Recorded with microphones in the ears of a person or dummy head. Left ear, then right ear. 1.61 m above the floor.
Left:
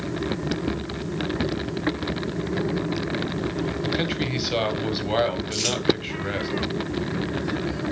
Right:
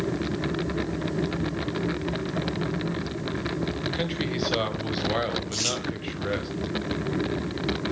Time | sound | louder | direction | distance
3.8 | a man speaking | left 4 dB | 5° left (ahead or behind) | 1.0 m
5.5 | crumpling | left 2 dB | centre (ahead or behind) | 2.5 m